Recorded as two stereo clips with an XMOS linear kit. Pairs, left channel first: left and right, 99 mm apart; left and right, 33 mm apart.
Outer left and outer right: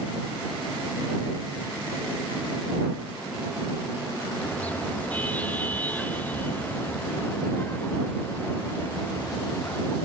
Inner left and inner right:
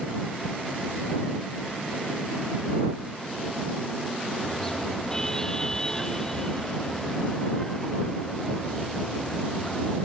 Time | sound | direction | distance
4.4 | a car horn | 15° left (ahead or behind) | ?